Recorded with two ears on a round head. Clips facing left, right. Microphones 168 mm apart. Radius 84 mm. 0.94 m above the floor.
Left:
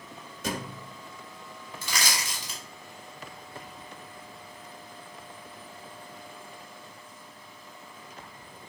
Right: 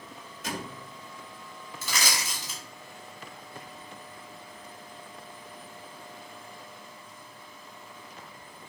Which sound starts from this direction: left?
A thud, at 0.4 s.